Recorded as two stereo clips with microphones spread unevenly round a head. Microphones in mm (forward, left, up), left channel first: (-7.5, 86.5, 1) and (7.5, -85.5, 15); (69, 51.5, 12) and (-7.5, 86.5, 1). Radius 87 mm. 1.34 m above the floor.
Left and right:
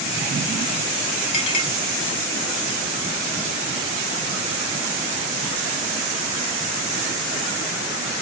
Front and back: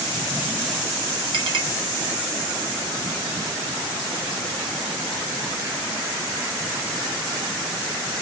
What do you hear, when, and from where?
1.3 s a clink: 155° left, 1.7 m